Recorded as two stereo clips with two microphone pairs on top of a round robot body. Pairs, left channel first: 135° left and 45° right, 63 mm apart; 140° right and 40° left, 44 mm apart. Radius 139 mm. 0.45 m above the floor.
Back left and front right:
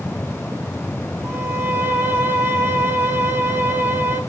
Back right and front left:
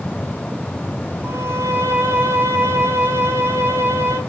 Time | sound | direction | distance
1.2 | a violin | 20° left | 3 m